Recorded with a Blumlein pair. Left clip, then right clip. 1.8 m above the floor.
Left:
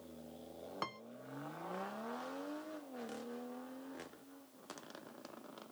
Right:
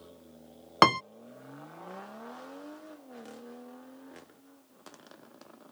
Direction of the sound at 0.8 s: 40° right.